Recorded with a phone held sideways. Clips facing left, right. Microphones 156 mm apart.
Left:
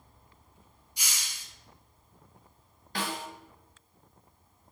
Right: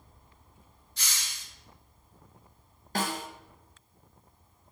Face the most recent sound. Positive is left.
turn(degrees=-45)  # may be behind; listen again after turning